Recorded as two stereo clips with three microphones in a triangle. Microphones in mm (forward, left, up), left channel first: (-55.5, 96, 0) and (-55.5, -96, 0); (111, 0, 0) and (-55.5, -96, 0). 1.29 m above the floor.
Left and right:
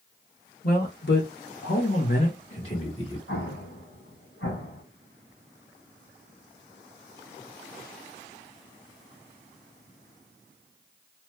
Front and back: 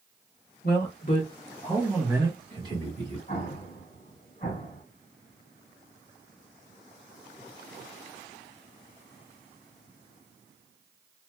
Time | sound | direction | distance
0.6 | a man speaking | 55° left | 1.0 m
3.3 | an explosion | 85° left | 1.2 m